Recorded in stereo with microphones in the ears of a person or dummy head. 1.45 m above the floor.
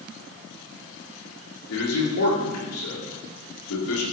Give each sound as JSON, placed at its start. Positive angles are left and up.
{"t": 1.7, "sound": "a man speaking", "side_deg": 85, "distance_m": 5.0}